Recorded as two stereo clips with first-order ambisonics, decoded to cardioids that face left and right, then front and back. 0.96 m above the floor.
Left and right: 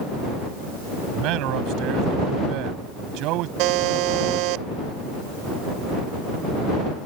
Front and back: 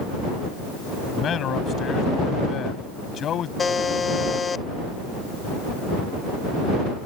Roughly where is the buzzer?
Right.